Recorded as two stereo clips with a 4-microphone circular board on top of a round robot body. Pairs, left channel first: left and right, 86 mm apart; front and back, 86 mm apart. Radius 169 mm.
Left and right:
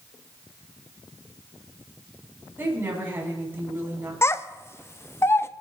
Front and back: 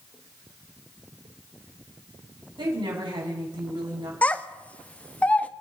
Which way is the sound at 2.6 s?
155° right.